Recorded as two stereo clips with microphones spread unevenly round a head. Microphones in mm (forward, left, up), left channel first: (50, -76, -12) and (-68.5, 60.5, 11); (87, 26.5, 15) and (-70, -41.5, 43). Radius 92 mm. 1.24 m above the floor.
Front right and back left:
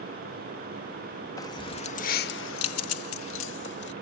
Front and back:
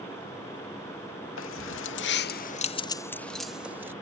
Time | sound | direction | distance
1.4 | keys jangling | 25° left | ?